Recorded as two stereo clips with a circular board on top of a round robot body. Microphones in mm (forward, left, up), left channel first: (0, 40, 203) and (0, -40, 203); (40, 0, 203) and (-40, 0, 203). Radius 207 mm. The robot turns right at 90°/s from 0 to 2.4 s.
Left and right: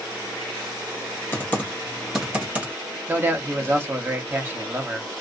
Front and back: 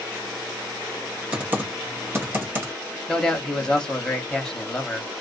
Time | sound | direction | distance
1.3 | typing on a keyboard | 115° left | 1.4 m
3.1 | a man speaking | 70° right | 1.1 m